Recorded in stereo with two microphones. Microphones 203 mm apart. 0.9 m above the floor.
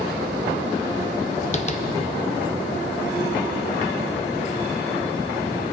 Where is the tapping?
35° left (ahead or behind), 0.6 m.